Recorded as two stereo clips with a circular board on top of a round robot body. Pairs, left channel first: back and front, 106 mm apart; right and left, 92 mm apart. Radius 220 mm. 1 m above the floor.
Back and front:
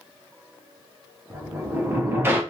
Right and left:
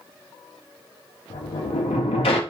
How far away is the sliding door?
About 0.6 m.